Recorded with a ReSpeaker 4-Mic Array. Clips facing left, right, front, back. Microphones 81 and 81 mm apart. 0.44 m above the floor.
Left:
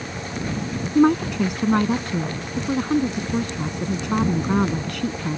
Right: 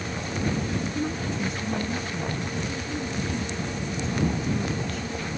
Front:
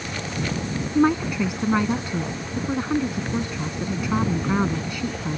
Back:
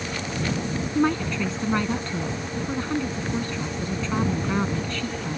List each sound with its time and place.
0.9 s a woman speaking: 75° left